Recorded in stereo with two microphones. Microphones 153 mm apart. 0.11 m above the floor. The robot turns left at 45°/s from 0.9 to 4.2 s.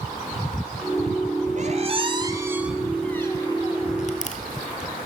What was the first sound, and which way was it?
A squeak, 55° right (ahead or behind).